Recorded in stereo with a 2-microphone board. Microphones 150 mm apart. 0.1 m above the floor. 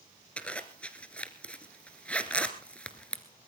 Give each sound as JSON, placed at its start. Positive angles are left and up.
{"t": 0.4, "sound": "a zipper", "side_deg": 10, "distance_m": 1.6}